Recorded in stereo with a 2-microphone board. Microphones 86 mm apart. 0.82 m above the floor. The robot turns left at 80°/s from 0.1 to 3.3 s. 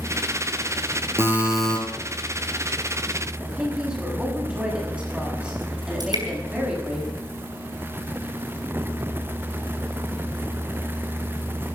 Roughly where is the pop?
I don't hear a pop.